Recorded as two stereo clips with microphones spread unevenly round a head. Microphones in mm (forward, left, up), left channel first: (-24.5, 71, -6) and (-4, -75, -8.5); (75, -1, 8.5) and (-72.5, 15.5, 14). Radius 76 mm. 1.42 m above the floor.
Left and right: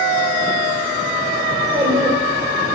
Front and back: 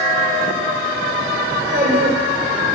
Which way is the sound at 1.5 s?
145° right.